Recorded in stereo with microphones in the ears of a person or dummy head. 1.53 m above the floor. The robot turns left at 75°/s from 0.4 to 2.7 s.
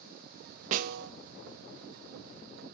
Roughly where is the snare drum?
Right.